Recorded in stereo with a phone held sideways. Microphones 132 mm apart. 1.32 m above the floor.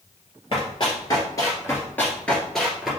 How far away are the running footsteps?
About 1.9 m.